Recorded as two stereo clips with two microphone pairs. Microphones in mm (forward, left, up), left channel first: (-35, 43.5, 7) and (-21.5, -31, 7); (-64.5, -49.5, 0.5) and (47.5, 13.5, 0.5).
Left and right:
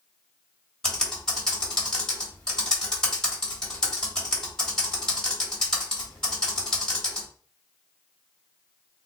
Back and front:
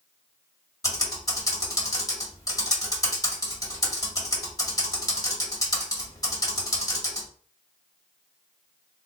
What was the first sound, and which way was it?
Typing on a keyboard, 170° left.